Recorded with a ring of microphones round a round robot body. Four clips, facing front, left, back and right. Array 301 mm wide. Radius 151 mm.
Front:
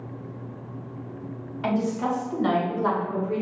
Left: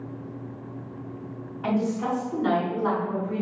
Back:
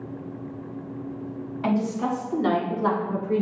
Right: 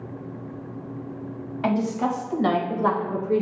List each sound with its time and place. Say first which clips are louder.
1.6 s a woman speaking: right 2 dB, even; 85° right, 3 m; by 3.4 s 110° right, 1.7 m